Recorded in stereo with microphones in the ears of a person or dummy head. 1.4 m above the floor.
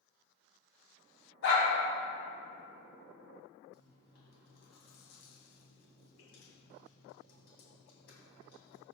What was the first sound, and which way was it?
A dog barking, 70° left (ahead or behind).